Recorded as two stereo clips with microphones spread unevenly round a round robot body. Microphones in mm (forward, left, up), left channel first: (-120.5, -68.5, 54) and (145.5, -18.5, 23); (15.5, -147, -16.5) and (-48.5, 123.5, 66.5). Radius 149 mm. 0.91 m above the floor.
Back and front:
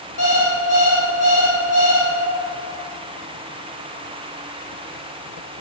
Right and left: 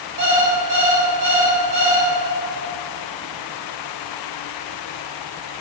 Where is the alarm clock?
150° left, 2.5 m.